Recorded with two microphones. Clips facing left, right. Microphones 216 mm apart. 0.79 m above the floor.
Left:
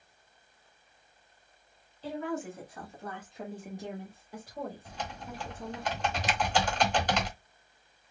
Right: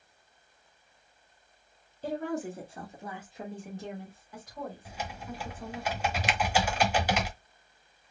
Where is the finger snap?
65° right (ahead or behind), 0.6 m.